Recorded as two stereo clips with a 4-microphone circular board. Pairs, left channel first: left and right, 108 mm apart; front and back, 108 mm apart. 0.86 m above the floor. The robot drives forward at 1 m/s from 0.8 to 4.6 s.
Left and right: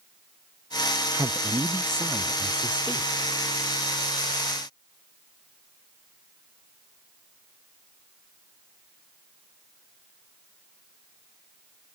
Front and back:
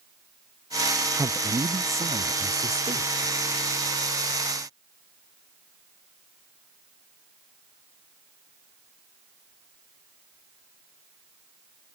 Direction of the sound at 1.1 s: 125° right.